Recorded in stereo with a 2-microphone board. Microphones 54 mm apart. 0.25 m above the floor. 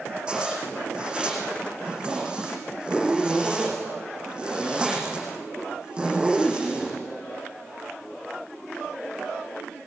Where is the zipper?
15° right (ahead or behind), 10 m.